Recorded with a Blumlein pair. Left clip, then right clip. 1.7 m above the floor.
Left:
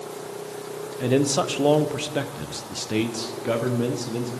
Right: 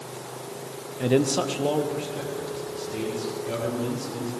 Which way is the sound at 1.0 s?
Straight ahead.